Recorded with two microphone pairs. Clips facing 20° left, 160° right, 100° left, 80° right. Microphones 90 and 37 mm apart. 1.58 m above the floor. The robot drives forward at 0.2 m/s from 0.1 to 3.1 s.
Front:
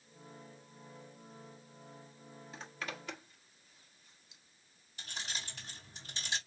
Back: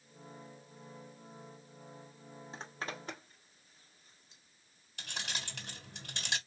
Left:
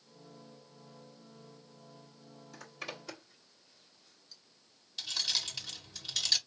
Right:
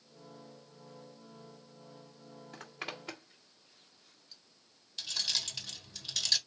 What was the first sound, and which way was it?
A zipper, 115° right.